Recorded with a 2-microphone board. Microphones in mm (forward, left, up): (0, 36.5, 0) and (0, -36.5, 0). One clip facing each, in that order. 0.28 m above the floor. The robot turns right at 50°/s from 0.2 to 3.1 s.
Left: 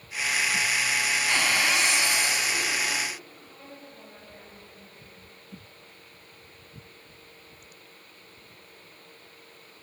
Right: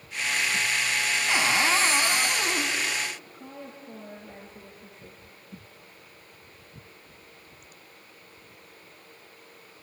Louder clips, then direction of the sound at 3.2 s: Right 5 dB; 65° right (ahead or behind).